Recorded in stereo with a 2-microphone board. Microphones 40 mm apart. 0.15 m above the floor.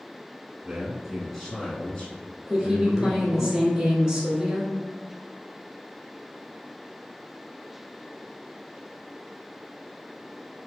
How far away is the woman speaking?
About 1.8 m.